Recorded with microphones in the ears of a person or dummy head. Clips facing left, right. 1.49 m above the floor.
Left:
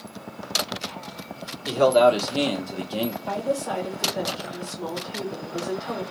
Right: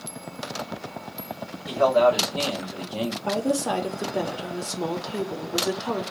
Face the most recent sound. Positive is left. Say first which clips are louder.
# right 2 dB
turn(degrees=-70)  # may be behind; listen again after turning